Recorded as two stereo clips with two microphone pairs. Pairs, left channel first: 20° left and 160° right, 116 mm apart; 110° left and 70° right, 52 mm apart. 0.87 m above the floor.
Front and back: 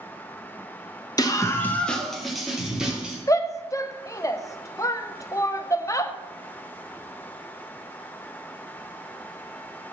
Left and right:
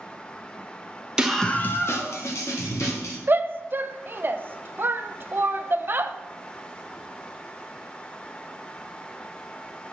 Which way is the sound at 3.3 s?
40° right.